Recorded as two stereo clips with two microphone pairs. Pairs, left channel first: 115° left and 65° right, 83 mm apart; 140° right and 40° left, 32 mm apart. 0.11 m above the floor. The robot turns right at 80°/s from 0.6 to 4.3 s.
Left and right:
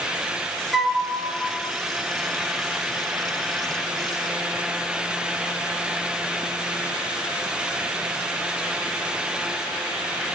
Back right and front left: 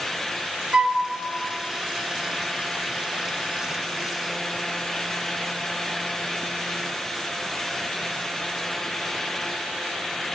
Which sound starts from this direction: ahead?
A flute, at 0.7 s.